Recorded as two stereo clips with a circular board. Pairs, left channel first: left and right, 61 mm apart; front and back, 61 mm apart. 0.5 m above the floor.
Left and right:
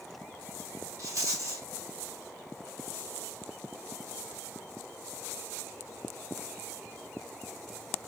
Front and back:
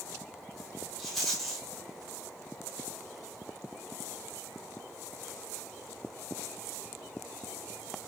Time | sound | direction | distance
1.0 | a rattle | 90° right | 1.5 m